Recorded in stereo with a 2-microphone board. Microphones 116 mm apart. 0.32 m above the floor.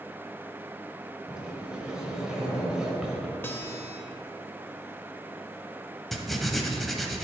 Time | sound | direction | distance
1.3 | a sliding door | 5° right (ahead or behind) | 1.3 m
3.4 | a guitar | 20° left (ahead or behind) | 0.7 m
6.1 | writing | centre (ahead or behind) | 0.7 m